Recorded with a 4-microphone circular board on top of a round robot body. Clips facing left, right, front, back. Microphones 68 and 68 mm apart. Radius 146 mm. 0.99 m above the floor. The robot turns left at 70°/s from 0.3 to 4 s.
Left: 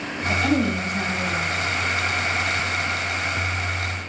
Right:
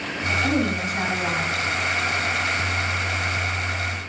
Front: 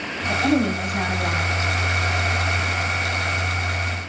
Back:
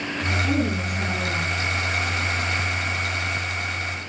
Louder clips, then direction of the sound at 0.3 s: Left 1 dB, front 5 dB; 25° left.